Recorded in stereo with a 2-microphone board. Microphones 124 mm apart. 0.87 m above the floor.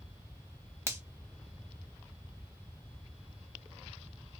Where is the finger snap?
20° right (ahead or behind), 0.7 m.